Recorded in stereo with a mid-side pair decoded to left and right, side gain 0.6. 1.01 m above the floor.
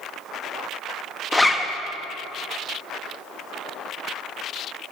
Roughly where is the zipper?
Ahead.